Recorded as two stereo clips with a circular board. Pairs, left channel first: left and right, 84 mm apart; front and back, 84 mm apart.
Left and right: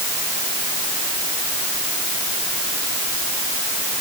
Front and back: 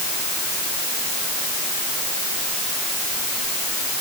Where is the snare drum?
No snare drum in this recording.